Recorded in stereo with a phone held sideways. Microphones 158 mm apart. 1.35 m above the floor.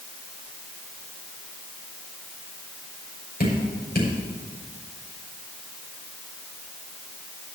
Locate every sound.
3.4 s dripping: 85° left, 6 m